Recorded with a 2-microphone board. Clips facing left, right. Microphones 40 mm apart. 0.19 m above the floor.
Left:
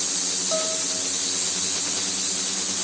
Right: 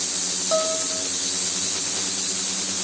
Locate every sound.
0.5 s a piano: 25° right (ahead or behind)